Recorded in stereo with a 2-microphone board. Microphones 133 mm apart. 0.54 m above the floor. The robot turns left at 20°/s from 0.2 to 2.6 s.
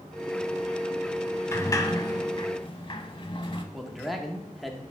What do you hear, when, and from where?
1.5 s a sliding door: 20° left (ahead or behind), 0.6 m; by 3.6 s 40° left (ahead or behind), 0.6 m
3.7 s a man speaking: centre (ahead or behind), 0.8 m